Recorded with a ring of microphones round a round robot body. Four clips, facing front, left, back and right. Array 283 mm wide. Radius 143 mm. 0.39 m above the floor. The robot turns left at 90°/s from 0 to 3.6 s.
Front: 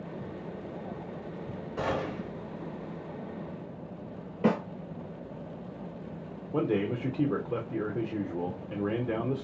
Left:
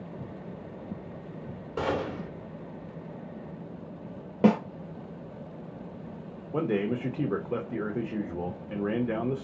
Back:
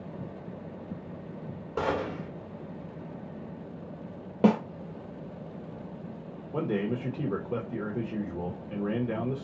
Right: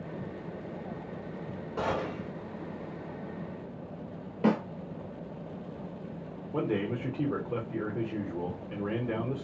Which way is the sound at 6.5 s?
60° left.